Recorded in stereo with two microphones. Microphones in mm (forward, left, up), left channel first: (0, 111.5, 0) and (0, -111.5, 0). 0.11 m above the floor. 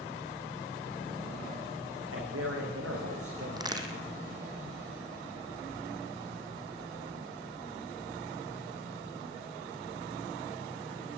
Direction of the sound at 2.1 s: 75° right (ahead or behind).